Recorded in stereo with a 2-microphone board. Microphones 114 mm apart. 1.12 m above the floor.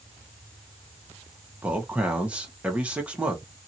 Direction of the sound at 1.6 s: 10° right (ahead or behind).